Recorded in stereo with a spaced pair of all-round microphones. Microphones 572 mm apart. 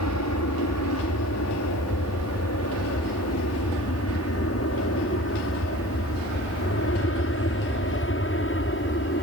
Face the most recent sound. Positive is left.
turn(degrees=20)  # may be behind; listen again after turning